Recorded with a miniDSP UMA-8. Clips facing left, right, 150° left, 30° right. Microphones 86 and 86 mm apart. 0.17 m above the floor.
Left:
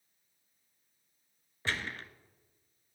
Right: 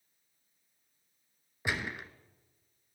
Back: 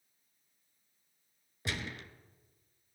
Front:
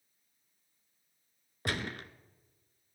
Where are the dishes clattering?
No dishes clattering in this recording.